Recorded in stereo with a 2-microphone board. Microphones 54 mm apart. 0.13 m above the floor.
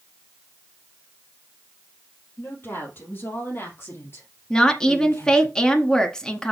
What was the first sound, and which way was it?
A woman speaking, 40° left (ahead or behind).